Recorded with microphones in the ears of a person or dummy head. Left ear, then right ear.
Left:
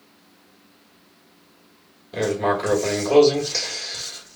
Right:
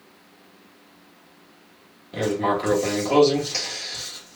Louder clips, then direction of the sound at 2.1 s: Left 1 dB; centre (ahead or behind).